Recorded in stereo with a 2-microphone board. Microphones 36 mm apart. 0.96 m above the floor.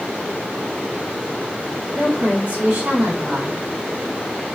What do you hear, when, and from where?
1.9 s a woman speaking: 55° right (ahead or behind), 1.6 m